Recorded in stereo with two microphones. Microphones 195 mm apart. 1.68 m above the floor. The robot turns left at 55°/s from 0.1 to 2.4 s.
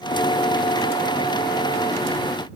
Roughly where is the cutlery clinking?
No cutlery clinking in this recording.